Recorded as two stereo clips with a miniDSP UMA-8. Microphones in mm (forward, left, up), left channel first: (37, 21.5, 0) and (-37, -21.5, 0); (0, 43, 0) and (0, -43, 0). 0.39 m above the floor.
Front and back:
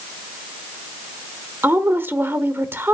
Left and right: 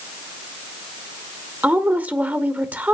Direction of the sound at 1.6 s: 135° right.